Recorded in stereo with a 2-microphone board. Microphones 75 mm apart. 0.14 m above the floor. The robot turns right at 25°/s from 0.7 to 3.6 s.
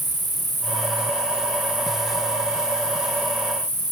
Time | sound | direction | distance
0.0 | an insect | straight ahead | 5 m